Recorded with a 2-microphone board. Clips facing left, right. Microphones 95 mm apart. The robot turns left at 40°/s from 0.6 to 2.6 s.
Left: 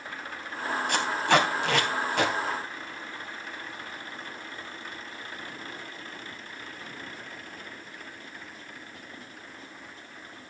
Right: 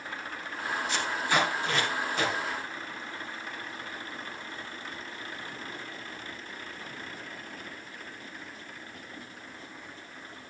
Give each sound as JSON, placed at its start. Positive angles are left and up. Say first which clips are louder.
{"t": 0.9, "sound": "tape being pulled", "louder": "left 6 dB", "side_deg": 60, "distance_m": 2.5}